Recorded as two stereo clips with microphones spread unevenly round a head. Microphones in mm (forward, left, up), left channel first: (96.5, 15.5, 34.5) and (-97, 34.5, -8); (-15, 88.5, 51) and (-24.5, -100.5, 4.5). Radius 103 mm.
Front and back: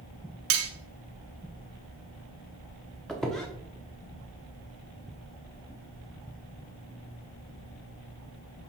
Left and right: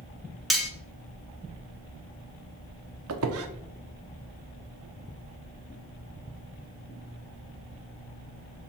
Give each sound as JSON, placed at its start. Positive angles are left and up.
{"t": 0.5, "sound": "cutlery clinking", "azimuth_deg": 180, "distance_m": 1.2}
{"t": 3.1, "sound": "a squeak", "azimuth_deg": -90, "distance_m": 0.9}